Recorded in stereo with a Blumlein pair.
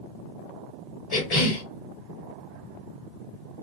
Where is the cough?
35° left, 2.5 m.